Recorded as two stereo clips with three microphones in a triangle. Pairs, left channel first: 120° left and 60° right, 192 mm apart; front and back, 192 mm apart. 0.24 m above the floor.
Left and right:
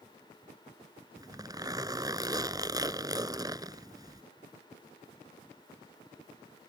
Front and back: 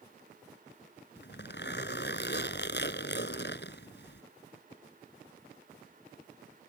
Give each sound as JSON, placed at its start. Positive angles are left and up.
{"t": 1.2, "sound": "a zipper", "azimuth_deg": 10}